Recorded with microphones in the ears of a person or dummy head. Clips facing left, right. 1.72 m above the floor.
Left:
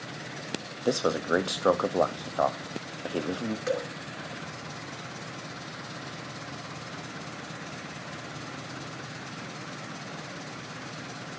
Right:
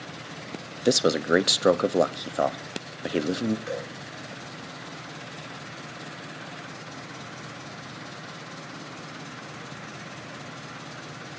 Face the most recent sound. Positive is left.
turn(degrees=50)  # may be behind; listen again after turning